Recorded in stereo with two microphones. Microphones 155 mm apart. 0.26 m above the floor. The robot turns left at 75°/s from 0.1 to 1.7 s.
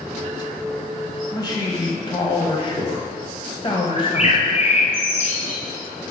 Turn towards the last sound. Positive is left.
turn(degrees=50)  # may be behind; listen again after turning